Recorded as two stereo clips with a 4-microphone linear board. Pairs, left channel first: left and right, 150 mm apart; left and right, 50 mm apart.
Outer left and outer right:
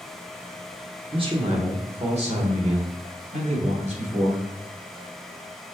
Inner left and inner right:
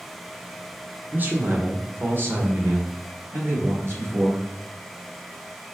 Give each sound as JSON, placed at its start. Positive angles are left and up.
{"t": 1.1, "sound": "a man speaking", "side_deg": -35, "distance_m": 1.5}